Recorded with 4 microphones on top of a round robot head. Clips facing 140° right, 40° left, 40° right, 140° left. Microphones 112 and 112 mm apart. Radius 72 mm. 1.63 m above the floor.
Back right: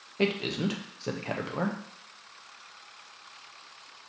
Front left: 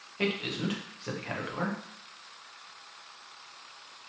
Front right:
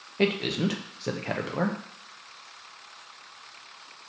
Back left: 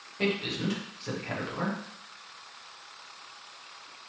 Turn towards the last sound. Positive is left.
turn(degrees=-80)